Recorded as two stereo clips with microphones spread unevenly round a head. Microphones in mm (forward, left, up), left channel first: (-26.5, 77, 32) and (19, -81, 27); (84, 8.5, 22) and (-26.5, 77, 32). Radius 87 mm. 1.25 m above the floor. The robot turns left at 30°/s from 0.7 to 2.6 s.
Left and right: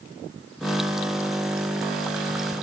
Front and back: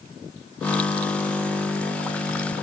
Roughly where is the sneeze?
No sneeze in this recording.